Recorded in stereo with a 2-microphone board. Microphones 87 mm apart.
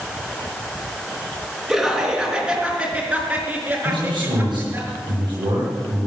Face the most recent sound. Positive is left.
turn(degrees=-60)  # may be behind; listen again after turning